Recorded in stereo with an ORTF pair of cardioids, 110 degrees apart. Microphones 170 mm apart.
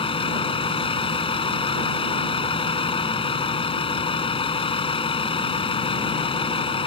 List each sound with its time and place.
0.0 s a vehicle: 30° left